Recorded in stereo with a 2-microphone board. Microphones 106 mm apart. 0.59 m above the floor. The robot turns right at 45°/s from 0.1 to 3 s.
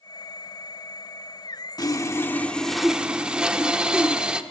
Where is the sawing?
135° left, 0.8 m; by 4.4 s 170° right, 0.8 m.